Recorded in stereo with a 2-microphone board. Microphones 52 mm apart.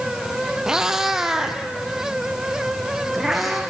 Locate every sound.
0.7 s a cat meowing: 10° right (ahead or behind), 2.0 m; by 3.6 s centre (ahead or behind), 4 m